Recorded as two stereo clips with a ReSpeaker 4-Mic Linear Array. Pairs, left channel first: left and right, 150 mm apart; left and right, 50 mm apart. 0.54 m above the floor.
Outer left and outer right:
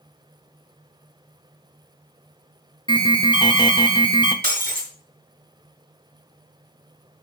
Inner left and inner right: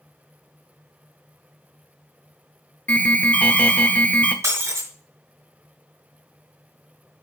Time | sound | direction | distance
2.9 | an alarm | 30° left (ahead or behind) | 1.0 m
4.4 | breaking glass | 85° right | 2.5 m